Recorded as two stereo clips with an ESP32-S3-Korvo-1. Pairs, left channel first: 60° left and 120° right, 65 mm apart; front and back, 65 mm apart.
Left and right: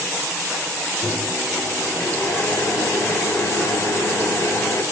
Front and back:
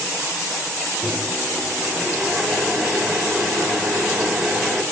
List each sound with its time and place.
1.0 s a microwave: 90° left, 2.5 m